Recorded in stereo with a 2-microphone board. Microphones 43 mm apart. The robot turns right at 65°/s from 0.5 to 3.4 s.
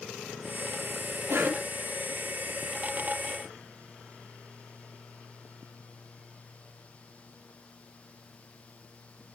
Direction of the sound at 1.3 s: 65° right (ahead or behind).